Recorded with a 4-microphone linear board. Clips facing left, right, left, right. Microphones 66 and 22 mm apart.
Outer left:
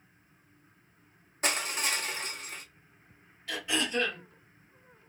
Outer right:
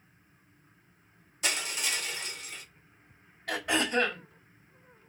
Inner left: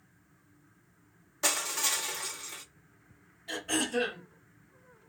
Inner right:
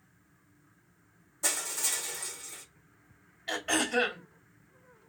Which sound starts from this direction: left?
Crushing, at 1.4 s.